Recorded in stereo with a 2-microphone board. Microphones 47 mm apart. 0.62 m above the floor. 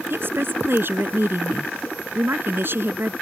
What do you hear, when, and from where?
0.1 s a woman speaking: 55° right (ahead or behind)